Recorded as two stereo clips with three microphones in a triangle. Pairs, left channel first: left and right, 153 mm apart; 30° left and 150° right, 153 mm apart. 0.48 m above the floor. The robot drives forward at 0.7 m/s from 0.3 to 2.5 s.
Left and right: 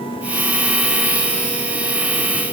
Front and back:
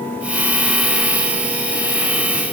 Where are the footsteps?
I don't hear footsteps.